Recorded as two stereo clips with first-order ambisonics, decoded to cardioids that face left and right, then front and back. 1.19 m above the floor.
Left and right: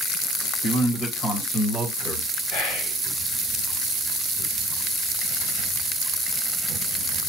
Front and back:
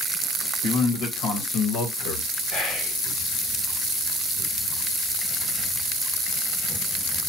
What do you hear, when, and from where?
0.6 s a man speaking: 30° left, 1.6 m; by 2.3 s 5° left, 1.0 m
2.5 s whispering: 85° left, 1.0 m